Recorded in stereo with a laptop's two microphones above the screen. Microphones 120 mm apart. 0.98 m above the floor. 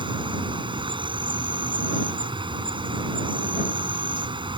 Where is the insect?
45° right (ahead or behind).